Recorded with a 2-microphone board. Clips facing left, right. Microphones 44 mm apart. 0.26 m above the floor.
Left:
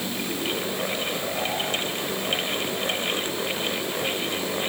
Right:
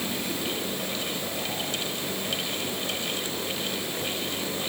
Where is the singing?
No singing in this recording.